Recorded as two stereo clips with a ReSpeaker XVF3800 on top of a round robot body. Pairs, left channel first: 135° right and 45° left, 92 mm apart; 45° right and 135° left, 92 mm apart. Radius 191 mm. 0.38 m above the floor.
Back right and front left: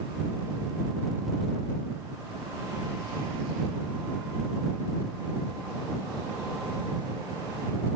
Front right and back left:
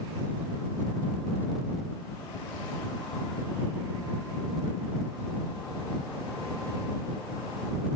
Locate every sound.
Only background noise.